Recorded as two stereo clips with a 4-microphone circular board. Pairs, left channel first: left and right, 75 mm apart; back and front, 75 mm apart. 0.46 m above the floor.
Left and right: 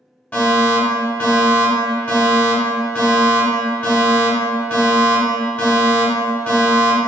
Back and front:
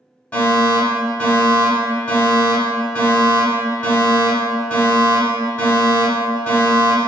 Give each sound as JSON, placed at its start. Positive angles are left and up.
{"t": 0.3, "sound": "a fire alarm", "azimuth_deg": 135, "distance_m": 1.7}